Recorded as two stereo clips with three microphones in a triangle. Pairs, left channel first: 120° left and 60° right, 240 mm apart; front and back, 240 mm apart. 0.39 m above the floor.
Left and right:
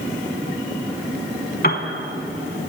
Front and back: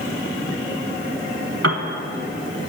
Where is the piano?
170° left, 0.8 m.